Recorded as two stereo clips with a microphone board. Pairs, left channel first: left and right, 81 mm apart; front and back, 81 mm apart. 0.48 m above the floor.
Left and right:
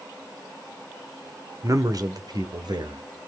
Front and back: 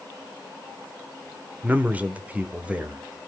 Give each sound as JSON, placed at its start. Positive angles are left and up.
{"t": 1.6, "sound": "a man speaking", "azimuth_deg": -120, "distance_m": 1.1}